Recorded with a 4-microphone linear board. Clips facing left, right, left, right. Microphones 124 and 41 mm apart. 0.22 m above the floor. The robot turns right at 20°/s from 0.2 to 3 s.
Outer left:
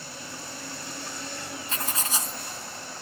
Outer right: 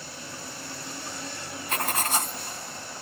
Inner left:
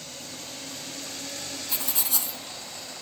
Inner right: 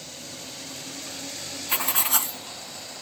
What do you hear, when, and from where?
1.7 s writing: 70° right (ahead or behind), 0.8 m; by 2.4 s 60° right (ahead or behind), 0.8 m